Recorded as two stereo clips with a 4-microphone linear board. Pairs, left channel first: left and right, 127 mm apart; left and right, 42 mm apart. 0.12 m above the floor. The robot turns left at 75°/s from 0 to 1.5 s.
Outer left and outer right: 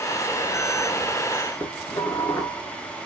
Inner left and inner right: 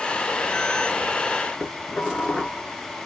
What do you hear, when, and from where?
1.6 s dishes clattering: 25° left (ahead or behind), 0.8 m